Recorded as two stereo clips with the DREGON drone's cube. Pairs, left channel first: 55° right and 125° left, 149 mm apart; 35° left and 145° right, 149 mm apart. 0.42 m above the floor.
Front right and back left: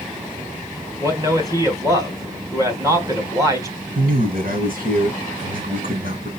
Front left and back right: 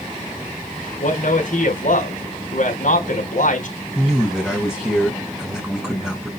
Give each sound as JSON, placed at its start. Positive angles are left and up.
{"t": 1.0, "sound": "a man speaking", "azimuth_deg": 60, "distance_m": 3.5}
{"t": 4.0, "sound": "a man speaking", "azimuth_deg": 130, "distance_m": 3.5}